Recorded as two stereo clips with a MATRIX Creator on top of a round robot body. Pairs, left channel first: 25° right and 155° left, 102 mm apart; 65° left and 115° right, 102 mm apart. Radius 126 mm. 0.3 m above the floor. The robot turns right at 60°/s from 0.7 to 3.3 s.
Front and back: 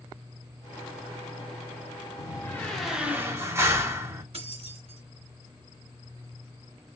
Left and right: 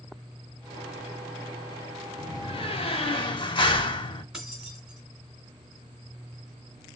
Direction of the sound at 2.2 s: 30° left.